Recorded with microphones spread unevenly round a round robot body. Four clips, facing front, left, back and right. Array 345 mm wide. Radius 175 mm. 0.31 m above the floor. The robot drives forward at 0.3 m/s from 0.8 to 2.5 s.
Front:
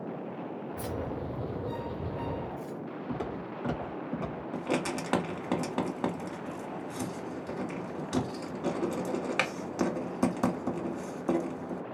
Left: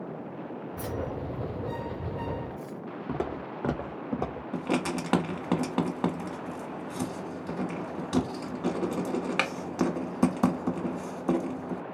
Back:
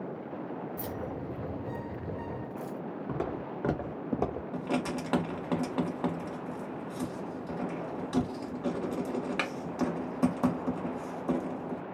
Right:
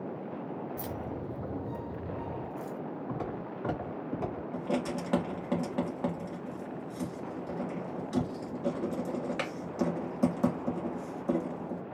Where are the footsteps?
105° left, 1.2 m; by 4.4 s 155° left, 0.9 m.